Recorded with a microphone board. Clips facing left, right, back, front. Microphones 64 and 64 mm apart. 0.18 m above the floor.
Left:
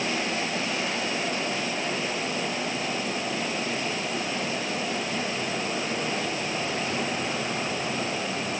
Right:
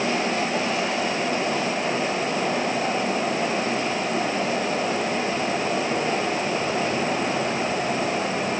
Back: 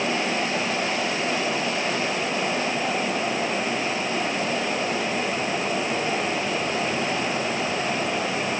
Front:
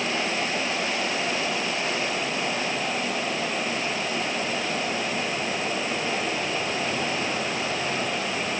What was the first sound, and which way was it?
Only background noise.